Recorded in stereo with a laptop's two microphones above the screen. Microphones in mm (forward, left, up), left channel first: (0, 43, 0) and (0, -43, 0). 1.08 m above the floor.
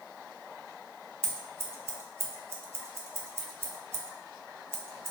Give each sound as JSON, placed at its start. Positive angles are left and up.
{"t": 1.2, "sound": "scissors", "side_deg": -30, "distance_m": 0.6}